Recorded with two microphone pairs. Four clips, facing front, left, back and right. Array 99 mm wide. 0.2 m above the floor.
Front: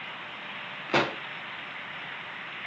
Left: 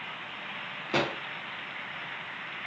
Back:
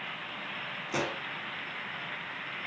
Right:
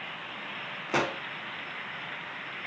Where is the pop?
30° right, 1.2 m.